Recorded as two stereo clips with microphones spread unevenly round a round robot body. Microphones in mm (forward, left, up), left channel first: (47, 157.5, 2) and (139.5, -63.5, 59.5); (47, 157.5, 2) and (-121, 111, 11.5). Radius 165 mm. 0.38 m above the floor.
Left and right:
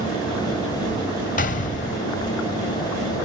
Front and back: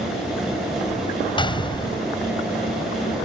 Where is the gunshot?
75° left.